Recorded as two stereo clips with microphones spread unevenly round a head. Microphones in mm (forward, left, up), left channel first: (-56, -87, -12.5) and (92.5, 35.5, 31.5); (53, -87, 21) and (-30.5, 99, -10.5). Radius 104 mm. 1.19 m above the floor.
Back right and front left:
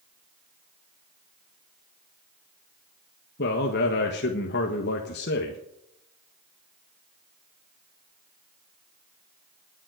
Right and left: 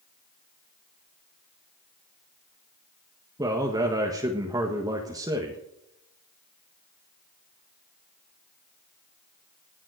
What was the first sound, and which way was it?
A man speaking, 175° right.